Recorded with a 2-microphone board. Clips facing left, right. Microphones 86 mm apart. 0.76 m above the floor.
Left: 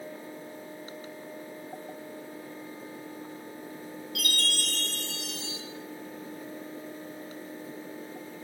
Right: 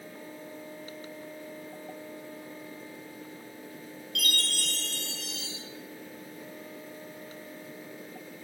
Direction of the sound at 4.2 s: 5° left (ahead or behind).